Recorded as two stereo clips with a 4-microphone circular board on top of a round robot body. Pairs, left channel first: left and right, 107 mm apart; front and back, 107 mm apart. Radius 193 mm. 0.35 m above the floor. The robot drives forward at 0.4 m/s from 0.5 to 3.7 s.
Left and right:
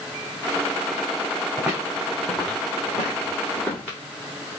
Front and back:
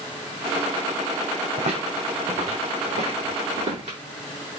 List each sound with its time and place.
1.6 s footsteps: 170° right, 2.5 m; by 4.0 s 165° left, 5.5 m